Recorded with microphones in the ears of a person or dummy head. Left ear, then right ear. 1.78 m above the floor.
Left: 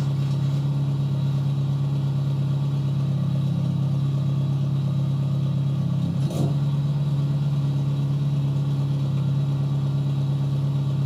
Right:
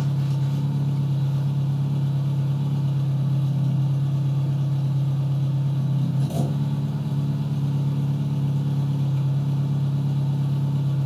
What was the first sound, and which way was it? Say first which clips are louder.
An engine running: even; 15° right (ahead or behind).